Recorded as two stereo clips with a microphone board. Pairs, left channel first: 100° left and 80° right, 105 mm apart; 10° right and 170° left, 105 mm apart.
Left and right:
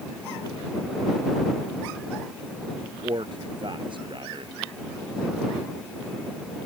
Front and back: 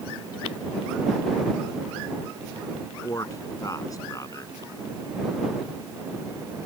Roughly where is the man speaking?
Ahead right.